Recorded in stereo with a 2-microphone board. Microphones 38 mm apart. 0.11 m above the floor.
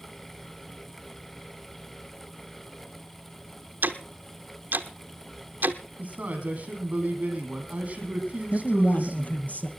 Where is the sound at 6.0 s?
40° right (ahead or behind), 6 m.